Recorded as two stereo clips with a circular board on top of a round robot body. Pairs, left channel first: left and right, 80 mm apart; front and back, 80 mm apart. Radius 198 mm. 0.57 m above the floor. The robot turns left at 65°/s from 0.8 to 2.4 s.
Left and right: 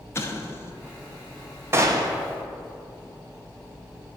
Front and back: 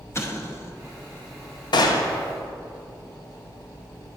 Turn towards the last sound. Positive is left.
turn(degrees=-75)